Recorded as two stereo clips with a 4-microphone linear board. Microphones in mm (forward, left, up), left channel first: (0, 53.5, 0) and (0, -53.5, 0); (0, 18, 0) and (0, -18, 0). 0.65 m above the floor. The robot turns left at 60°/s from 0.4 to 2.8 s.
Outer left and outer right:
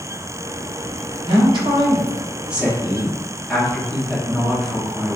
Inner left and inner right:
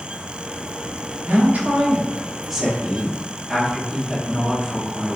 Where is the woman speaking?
90° right, 0.7 m; by 5.2 s 175° left, 0.7 m.